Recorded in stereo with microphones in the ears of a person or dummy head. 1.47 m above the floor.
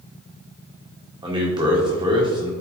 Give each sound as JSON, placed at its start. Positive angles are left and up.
{"t": 1.2, "sound": "a man speaking", "side_deg": -20, "distance_m": 1.8}